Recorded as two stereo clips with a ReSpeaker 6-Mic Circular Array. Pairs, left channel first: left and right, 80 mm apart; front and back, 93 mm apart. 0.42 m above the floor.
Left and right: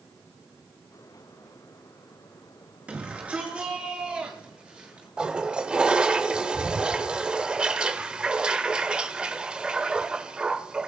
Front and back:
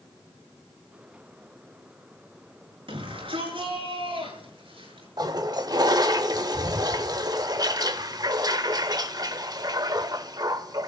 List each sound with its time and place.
2.9 s a shout: 165° right, 7 m
5.2 s a toilet flushing: 165° right, 1.1 m